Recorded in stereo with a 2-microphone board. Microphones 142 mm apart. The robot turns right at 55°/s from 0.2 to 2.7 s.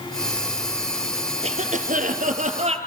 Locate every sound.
1.4 s a cough: 125° right, 3 m; by 2.8 s 55° right, 3 m